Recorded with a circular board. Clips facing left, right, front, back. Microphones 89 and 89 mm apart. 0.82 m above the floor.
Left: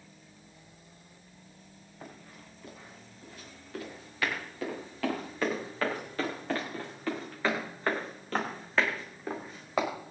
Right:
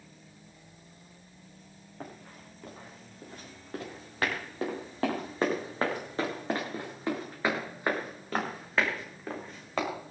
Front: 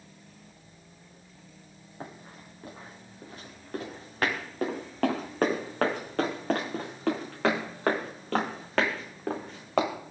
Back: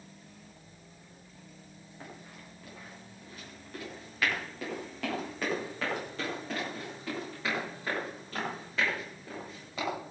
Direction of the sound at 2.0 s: 55° right.